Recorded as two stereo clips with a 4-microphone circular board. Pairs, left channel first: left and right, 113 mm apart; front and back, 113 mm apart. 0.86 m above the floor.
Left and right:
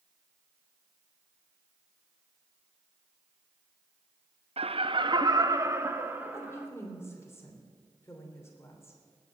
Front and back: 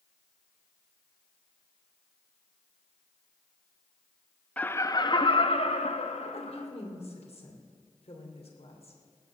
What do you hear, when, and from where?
4.6 s laughter: 75° right, 0.7 m; by 6.7 s 15° right, 1.9 m
6.3 s a woman speaking: 25° left, 2.5 m